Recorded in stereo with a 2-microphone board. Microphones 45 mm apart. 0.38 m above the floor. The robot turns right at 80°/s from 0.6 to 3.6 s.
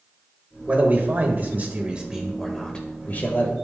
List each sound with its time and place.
0.7 s a man speaking: 135° right, 1.5 m; by 3.5 s 95° left, 1.5 m